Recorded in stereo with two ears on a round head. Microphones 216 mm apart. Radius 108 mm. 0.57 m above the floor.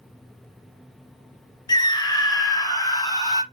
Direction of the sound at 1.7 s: 15° left (ahead or behind).